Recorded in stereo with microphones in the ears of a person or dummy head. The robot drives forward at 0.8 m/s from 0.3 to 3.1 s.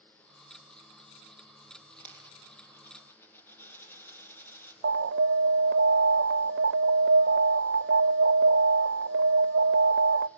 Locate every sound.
2.0 s a dropped coin: 10° left (ahead or behind), 5.5 m; by 4.7 s 15° left (ahead or behind), 5 m
4.8 s an alarm: 55° right (ahead or behind), 0.6 m